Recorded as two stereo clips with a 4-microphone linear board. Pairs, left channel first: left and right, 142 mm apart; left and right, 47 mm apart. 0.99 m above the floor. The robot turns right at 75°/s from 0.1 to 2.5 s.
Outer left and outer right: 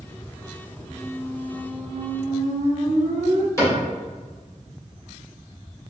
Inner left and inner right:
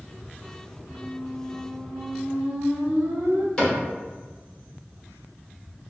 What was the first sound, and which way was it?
A squeak, 130° left.